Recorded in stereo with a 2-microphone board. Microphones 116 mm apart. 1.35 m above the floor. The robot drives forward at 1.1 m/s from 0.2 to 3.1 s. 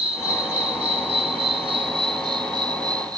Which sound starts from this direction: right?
An insect, at 0.0 s.